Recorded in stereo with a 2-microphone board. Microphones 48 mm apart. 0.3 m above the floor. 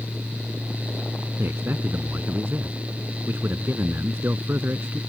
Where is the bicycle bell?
No bicycle bell in this recording.